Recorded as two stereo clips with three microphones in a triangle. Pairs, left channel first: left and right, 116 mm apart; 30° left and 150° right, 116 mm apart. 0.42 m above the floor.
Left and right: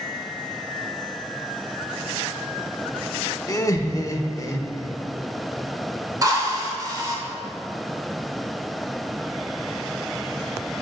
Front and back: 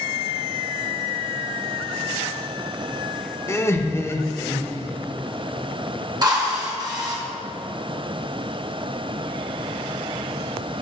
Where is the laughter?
70° left, 0.8 m.